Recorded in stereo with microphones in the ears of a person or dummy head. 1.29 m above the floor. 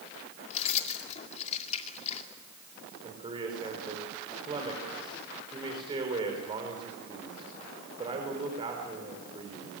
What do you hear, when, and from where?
0.5 s keys jangling: 35° left (ahead or behind), 2.5 m
3.0 s a man speaking: 25° right (ahead or behind), 4 m